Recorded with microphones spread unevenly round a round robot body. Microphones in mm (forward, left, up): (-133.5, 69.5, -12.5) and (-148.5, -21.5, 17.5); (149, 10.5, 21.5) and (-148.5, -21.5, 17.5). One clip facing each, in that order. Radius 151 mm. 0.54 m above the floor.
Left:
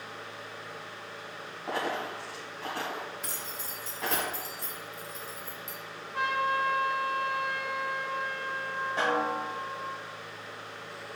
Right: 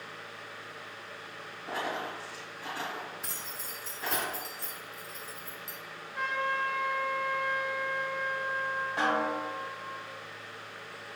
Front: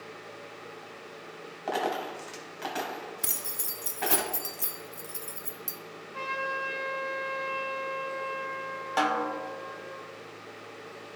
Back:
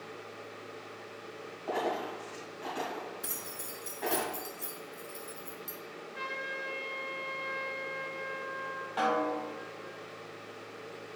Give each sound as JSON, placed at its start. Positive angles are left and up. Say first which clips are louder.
{"t": 1.7, "sound": "a dropped coin", "louder": "left 2 dB, front 2 dB", "azimuth_deg": 20, "distance_m": 1.7}
{"t": 3.2, "sound": "keys jangling", "louder": "left 3 dB, front 1 dB", "azimuth_deg": 35, "distance_m": 0.5}
{"t": 6.1, "sound": "a trumpet", "louder": "left 3 dB, front 7 dB", "azimuth_deg": 70, "distance_m": 2.5}
{"t": 9.0, "sound": "a snare drum", "louder": "left 1 dB, even", "azimuth_deg": -5, "distance_m": 1.1}